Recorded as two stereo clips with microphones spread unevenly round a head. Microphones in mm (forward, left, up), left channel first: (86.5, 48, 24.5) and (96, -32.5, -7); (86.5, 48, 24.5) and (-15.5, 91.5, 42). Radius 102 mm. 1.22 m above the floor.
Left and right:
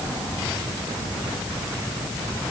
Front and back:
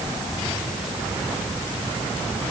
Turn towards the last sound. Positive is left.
No sound to turn to.